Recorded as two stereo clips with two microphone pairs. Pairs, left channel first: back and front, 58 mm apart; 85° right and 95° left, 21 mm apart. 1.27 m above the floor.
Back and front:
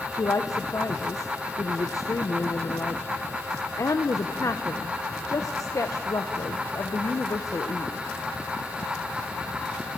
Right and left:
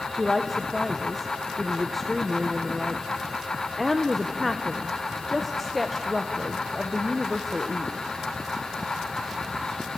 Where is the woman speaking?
170° right, 0.7 m.